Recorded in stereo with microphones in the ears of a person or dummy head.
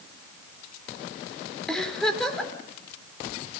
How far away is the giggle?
About 3.5 m.